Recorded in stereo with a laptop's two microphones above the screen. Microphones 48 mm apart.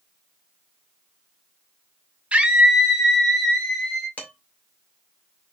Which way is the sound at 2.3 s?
30° right (ahead or behind).